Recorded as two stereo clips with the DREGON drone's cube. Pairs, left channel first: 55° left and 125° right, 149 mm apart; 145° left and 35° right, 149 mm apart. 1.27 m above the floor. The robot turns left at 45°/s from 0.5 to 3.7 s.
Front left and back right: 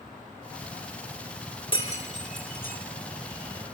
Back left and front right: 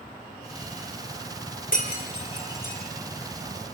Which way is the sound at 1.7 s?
110° left.